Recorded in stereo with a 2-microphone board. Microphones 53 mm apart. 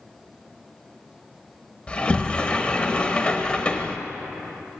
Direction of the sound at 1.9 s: 25° left (ahead or behind).